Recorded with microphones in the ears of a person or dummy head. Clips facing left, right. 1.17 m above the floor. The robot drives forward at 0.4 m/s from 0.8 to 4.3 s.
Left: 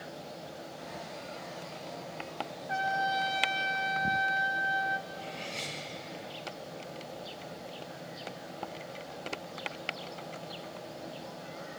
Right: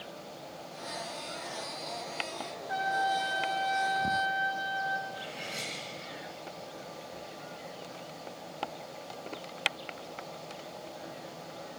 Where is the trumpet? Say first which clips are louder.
Right 1 dB; 45° left (ahead or behind), 1.5 m; by 5.0 s 35° left (ahead or behind), 2.0 m.